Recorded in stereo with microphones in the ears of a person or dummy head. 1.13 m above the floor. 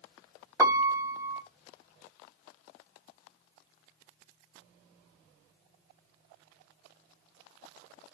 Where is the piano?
20° right (ahead or behind), 0.6 m.